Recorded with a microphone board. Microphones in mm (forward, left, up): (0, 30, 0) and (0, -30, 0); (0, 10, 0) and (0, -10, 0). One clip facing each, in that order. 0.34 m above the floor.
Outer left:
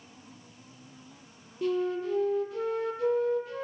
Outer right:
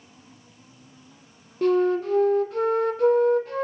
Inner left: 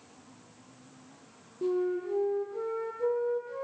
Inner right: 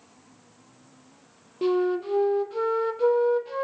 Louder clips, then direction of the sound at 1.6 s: Outer right 8 dB, inner right 6 dB; 55° right (ahead or behind).